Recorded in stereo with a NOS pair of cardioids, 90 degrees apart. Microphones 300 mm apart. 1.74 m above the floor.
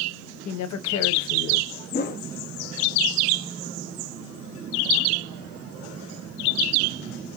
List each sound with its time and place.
0.5 s a woman speaking: 65° left, 1.0 m
1.9 s a whoosh: 35° left, 0.7 m